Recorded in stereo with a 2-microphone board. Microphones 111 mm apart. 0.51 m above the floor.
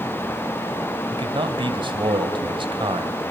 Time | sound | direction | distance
1.1 | a man speaking | 50° right (ahead or behind) | 2.5 m